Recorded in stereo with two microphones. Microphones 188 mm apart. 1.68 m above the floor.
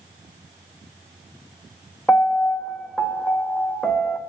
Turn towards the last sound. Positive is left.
turn(degrees=5)  # may be behind; listen again after turning